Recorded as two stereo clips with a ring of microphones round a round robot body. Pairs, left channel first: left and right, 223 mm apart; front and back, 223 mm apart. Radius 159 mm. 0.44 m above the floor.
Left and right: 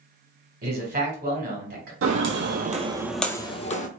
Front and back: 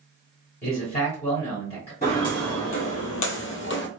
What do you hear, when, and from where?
0.6 s a man speaking: 60° right, 2 m
2.0 s footsteps: 70° right, 1.0 m; by 3.9 s 35° left, 1.0 m